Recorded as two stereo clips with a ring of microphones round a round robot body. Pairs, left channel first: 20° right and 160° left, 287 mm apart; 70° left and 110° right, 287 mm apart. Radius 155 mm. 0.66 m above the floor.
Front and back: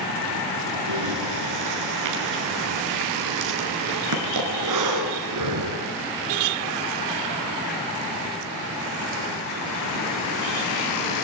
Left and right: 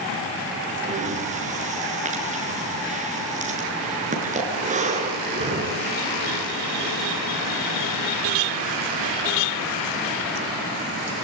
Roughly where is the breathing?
Behind.